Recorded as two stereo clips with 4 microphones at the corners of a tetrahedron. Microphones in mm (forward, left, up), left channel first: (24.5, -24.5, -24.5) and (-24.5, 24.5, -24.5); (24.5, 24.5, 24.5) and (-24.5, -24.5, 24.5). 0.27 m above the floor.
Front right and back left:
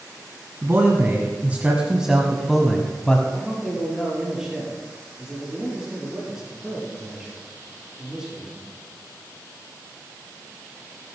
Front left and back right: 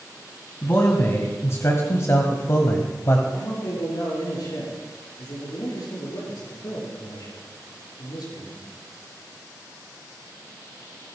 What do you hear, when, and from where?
0.6 s a man speaking: 90° left, 1.7 m; by 3.2 s 20° left, 1.3 m
3.3 s a man speaking: 55° left, 5 m